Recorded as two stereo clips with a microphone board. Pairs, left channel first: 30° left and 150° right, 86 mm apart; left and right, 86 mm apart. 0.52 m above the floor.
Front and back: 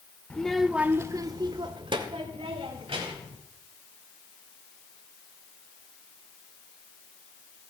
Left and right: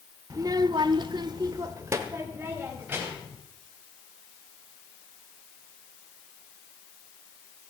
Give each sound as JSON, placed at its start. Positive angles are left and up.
{"t": 0.3, "sound": "a child speaking", "azimuth_deg": -45, "distance_m": 0.9}